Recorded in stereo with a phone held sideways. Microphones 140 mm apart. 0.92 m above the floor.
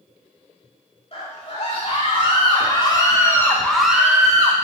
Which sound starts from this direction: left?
A scream, at 1.1 s.